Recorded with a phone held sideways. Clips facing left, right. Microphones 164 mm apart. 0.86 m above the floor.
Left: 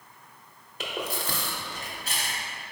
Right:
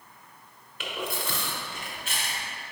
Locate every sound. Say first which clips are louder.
0.8 s chewing: left 1 dB; 40° left (ahead or behind), 0.7 m